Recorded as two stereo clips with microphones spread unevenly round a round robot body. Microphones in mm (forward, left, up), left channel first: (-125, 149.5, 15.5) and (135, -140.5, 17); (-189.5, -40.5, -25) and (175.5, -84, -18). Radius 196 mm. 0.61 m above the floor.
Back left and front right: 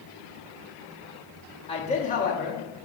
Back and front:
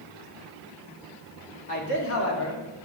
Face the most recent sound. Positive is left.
turn(degrees=-165)